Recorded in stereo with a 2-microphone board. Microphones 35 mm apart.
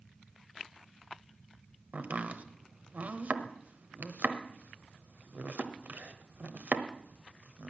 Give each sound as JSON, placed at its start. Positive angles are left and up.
{"t": 1.9, "sound": "chopping", "side_deg": -50, "distance_m": 1.1}